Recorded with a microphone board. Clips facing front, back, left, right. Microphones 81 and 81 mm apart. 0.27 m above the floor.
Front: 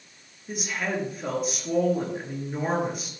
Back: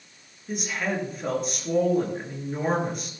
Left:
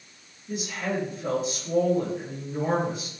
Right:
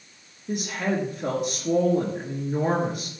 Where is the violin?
I don't hear a violin.